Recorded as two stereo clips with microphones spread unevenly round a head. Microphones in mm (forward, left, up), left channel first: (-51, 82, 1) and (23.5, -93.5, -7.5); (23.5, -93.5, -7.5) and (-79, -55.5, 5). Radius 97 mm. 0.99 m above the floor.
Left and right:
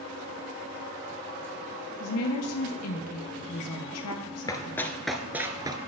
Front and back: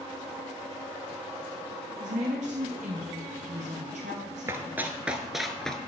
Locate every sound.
2.0 s a woman speaking: 110° left, 0.7 m
4.5 s running footsteps: 155° left, 1.0 m; by 5.8 s 105° right, 1.0 m